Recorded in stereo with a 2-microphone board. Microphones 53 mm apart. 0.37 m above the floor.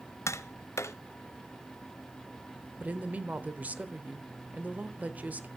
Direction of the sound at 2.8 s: 30° right (ahead or behind).